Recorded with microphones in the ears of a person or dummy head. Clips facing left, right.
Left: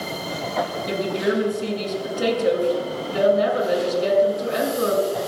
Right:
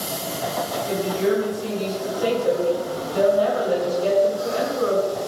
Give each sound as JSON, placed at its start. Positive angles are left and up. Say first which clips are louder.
{"t": 0.9, "sound": "a woman speaking", "louder": "right 3 dB", "side_deg": 40, "distance_m": 7.0}